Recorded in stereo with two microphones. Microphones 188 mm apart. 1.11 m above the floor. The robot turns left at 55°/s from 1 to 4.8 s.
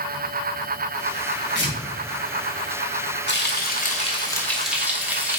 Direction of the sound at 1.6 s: 65° right (ahead or behind).